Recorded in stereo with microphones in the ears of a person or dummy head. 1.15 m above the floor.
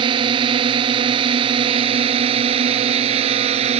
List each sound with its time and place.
0.0 s a drone: 30° right (ahead or behind); by 3.8 s 35° right (ahead or behind)